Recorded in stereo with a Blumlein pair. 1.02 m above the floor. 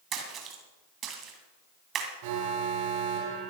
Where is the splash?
25° right, 2.5 m.